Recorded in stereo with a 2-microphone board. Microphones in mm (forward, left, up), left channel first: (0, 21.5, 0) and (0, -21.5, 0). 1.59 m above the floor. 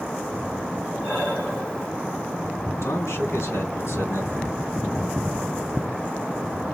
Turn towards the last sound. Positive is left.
turn(degrees=90)